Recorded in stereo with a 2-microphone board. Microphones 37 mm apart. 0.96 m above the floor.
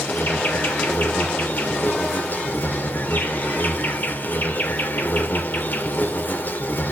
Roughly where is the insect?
Left.